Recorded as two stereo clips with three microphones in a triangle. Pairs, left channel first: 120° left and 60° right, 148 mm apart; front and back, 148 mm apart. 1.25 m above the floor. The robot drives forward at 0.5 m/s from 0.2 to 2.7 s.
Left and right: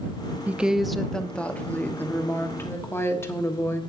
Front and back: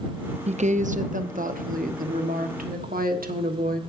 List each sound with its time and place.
0.5 s a woman speaking: 140° right, 0.5 m; by 3.8 s 165° right, 1.6 m